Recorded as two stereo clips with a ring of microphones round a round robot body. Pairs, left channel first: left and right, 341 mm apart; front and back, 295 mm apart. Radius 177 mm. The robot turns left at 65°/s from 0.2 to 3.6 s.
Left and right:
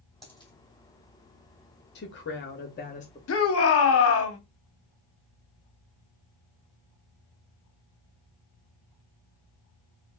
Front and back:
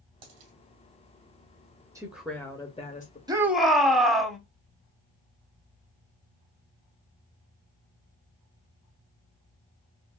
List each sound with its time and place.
0.2 s a dropped coin: straight behind, 2 m; by 0.5 s 160° left, 2 m
1.9 s a woman speaking: 110° left, 0.9 m; by 3.2 s 30° left, 0.9 m
3.3 s a shout: 110° left, 1.2 m; by 4.4 s 90° left, 1.2 m